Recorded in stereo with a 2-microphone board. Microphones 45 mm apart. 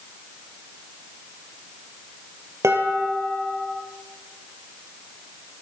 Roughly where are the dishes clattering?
Right.